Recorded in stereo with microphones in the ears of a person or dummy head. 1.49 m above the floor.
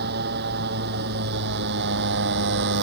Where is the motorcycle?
55° right (ahead or behind).